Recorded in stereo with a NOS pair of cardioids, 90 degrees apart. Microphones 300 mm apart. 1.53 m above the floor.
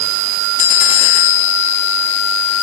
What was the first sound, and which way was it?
Only background noise.